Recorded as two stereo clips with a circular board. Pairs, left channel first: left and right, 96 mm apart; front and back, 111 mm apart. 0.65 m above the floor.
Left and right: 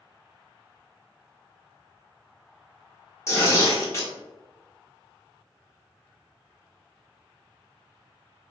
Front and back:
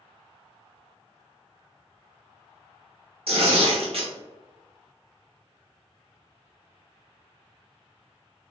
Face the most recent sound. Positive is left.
turn(degrees=150)